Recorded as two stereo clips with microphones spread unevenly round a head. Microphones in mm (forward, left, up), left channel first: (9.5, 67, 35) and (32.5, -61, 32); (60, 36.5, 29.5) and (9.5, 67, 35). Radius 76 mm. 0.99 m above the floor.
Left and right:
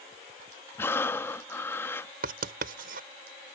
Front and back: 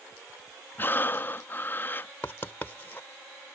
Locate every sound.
0.8 s breathing: 25° left
2.2 s writing: 105° right